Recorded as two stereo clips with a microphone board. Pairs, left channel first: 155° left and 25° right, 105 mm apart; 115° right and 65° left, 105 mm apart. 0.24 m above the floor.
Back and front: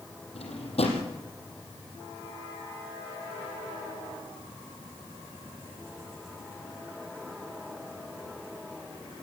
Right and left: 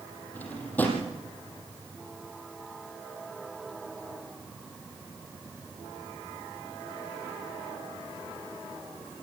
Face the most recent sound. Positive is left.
turn(degrees=175)